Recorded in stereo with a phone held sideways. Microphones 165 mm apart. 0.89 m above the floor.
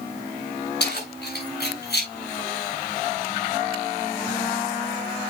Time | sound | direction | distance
0.8 | keys jangling | 85° left | 6.5 m